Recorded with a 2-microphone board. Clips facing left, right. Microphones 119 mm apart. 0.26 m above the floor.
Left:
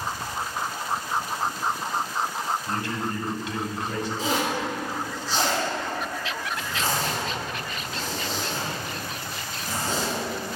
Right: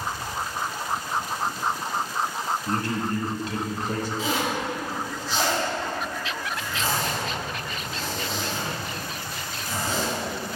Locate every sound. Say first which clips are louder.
2.7 s a man speaking: right 2 dB; 40° right (ahead or behind), 1.3 m
4.2 s a zipper: left 3 dB; 40° left (ahead or behind), 3 m